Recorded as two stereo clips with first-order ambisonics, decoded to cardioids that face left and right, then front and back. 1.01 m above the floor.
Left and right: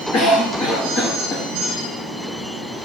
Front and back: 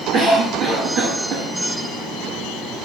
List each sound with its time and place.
0.1 s a cough: 135° left, 1.9 m